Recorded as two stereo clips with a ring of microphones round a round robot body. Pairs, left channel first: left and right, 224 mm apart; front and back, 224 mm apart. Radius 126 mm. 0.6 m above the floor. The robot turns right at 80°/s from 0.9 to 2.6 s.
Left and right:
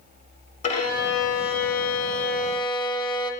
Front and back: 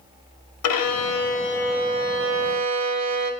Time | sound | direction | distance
0.6 | a violin | 25° left | 0.7 m